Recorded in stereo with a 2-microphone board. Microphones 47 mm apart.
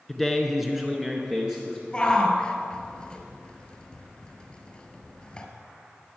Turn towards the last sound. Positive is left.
turn(degrees=20)  # may be behind; listen again after turning